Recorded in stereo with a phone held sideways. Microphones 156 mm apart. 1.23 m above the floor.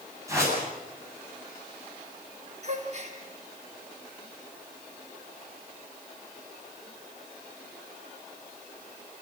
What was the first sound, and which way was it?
A whoosh, 20° right (ahead or behind).